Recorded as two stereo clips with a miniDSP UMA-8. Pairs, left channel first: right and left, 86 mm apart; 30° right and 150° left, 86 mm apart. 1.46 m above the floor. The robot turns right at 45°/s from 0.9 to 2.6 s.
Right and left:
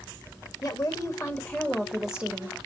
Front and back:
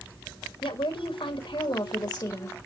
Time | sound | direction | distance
0.6 | a woman speaking | 45° right | 2 m